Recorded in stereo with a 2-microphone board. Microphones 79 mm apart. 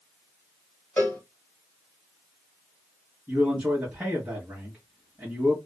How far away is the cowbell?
About 1.4 m.